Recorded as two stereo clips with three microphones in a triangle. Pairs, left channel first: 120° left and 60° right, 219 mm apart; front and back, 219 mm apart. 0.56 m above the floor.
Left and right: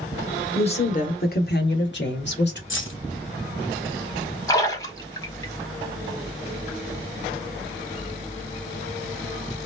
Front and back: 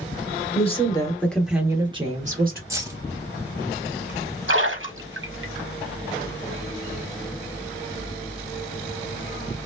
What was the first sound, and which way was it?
A woman speaking, 60° left.